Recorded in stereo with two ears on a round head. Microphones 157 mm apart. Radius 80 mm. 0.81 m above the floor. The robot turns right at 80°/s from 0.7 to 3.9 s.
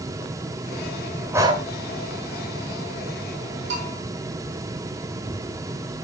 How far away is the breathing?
About 2.0 m.